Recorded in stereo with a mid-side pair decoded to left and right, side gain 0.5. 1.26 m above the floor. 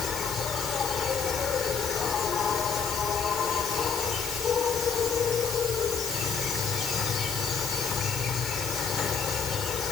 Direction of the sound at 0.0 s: 50° left.